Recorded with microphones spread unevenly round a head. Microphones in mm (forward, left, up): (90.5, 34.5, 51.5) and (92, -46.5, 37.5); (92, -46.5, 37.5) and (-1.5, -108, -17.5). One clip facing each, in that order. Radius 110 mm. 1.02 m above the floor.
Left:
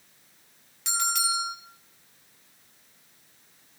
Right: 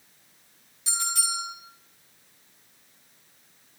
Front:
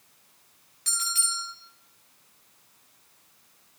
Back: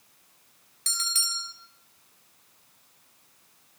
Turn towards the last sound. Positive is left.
turn(degrees=145)